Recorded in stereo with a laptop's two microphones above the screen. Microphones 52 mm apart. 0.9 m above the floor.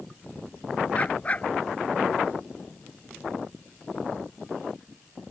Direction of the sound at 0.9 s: 30° left (ahead or behind).